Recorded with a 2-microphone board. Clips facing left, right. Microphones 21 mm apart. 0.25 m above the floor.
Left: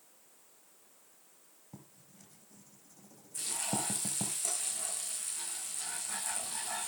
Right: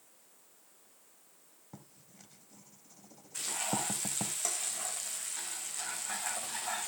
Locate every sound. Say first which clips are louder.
1.7 s writing: right 1 dB; 25° right (ahead or behind), 1.6 m
3.3 s frying: right 2 dB; 35° right (ahead or behind), 6 m